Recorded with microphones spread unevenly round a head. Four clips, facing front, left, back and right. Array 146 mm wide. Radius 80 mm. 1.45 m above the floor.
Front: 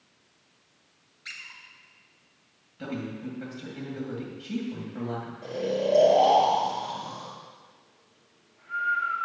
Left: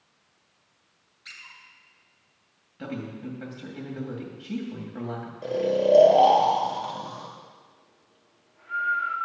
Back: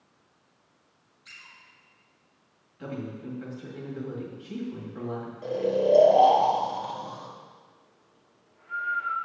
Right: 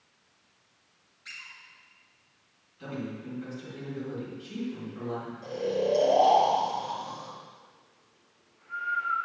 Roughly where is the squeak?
Ahead.